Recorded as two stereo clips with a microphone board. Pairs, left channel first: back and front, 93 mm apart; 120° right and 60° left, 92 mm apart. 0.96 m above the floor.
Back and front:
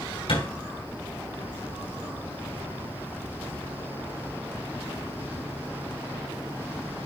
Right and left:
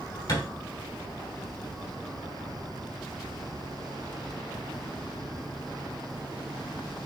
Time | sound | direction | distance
0.3 | a thud | 175° right | 5 m